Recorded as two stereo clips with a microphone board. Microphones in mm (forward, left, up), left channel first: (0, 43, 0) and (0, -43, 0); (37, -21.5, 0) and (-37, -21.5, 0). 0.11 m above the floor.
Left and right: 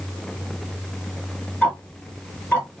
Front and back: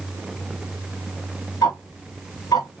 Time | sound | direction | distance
1.6 | ticking | 25° left | 1.2 m